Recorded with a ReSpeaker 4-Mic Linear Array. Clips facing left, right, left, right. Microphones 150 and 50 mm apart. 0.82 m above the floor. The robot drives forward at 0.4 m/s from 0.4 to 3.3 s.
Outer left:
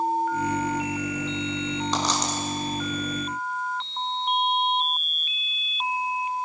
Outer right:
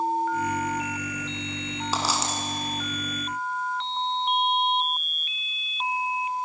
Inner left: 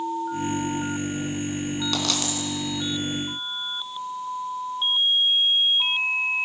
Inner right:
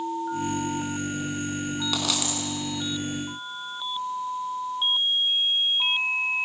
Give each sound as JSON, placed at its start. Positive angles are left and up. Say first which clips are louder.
{"t": 1.9, "sound": "a dropped coin", "louder": "outer right 2 dB, inner left 1 dB", "side_deg": -5, "distance_m": 4.5}